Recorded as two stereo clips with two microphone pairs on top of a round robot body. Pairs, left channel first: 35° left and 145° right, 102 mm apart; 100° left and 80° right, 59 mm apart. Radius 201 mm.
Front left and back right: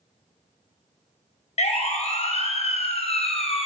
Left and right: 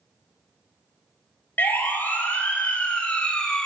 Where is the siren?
35° left, 4 m; by 3.7 s 15° left, 2.5 m.